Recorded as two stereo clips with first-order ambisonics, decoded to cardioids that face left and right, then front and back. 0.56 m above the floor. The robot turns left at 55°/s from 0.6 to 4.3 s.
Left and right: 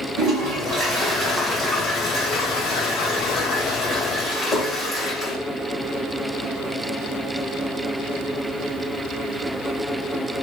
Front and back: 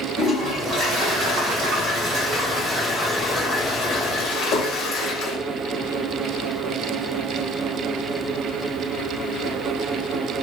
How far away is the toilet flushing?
About 2.5 m.